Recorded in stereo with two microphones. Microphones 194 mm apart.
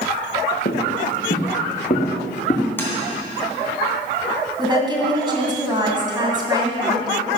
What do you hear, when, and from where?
0.7 s footsteps: 60° left (ahead or behind), 2.5 m; by 2.7 s 40° left (ahead or behind), 3.5 m
2.8 s tapping: 10° left (ahead or behind), 2.5 m
4.6 s a woman speaking: 25° right (ahead or behind), 2.5 m